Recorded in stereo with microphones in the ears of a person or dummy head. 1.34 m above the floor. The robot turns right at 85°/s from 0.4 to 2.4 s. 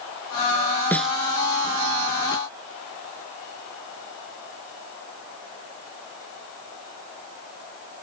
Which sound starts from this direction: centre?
A snare drum, at 0.9 s.